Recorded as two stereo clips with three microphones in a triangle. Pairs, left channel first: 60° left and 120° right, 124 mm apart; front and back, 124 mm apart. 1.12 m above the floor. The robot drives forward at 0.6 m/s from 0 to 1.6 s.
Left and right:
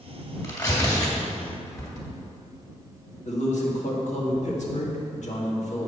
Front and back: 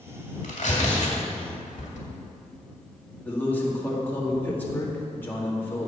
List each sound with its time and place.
0.4 s tearing paper: 5° right, 2.5 m
3.2 s a man speaking: 75° left, 1.8 m